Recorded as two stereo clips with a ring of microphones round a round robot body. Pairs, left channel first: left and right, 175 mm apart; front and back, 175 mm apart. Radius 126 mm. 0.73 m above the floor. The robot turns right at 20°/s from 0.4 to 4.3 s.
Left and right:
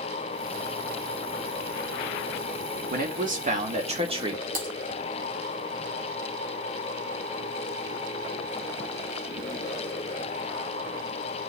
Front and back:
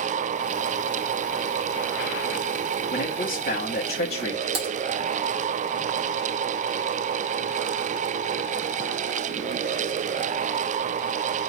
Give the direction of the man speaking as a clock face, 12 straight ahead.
2 o'clock.